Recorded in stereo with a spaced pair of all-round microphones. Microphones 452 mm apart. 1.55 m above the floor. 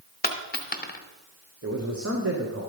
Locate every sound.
0.2 s a dropped coin: 20° left (ahead or behind), 0.9 m
1.6 s a man speaking: 30° right (ahead or behind), 0.9 m